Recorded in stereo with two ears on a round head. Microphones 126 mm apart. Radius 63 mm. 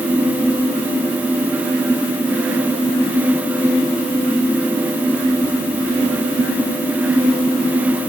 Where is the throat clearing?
No throat clearing in this recording.